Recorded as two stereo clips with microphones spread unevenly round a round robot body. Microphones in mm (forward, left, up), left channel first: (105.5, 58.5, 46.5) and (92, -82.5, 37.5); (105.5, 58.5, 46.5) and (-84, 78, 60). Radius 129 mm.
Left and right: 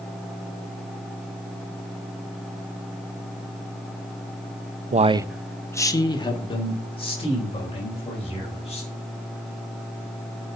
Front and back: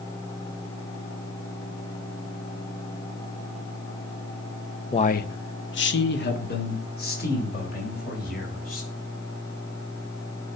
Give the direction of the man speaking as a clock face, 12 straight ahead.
2 o'clock.